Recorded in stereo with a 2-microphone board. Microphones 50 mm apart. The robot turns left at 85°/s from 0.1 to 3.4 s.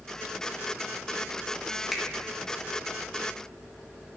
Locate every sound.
1.9 s a finger snap: centre (ahead or behind), 1.9 m; by 2.0 s 10° left (ahead or behind), 1.9 m